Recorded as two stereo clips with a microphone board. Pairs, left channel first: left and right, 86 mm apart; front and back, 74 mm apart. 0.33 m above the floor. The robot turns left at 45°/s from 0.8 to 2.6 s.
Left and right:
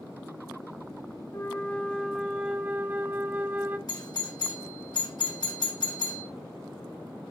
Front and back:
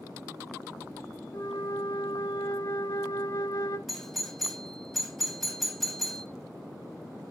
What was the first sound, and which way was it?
A flute, 30° left.